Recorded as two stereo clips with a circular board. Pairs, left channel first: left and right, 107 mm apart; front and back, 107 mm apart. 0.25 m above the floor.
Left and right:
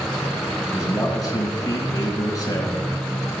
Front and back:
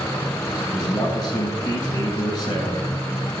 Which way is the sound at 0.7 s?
40° left.